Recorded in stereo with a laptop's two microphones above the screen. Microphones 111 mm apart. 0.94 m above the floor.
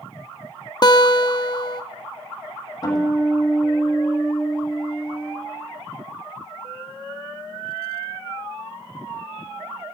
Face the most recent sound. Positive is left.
turn(degrees=35)  # may be behind; listen again after turning